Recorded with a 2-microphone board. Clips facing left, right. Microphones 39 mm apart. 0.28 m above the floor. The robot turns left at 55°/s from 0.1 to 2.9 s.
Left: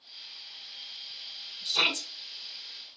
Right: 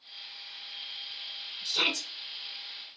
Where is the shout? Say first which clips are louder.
Left 2 dB; 25° left (ahead or behind), 1.7 m; by 2.1 s 30° left (ahead or behind), 1.7 m.